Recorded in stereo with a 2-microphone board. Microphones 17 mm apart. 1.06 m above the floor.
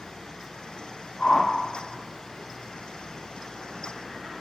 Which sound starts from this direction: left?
A whoosh, at 1.2 s.